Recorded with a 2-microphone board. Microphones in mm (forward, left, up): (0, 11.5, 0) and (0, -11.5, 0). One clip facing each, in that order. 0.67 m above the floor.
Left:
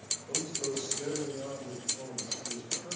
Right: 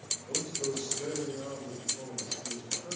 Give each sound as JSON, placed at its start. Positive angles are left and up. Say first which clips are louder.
{"t": 0.3, "sound": "a man speaking", "louder": "right 1 dB", "side_deg": -20, "distance_m": 3.5}